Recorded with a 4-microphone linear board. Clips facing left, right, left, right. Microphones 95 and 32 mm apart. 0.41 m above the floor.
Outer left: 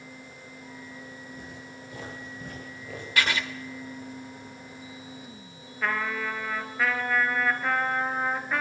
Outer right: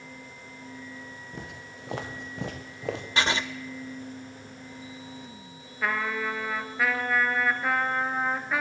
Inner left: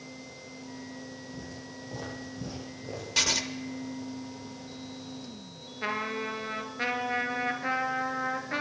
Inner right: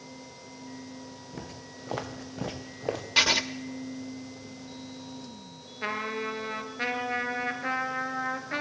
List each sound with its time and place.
1.3 s footsteps: 70° right (ahead or behind), 5 m; by 3.1 s 85° right, 4.5 m
3.2 s writing: 25° right (ahead or behind), 1.0 m
5.8 s a trumpet: 5° right (ahead or behind), 2.0 m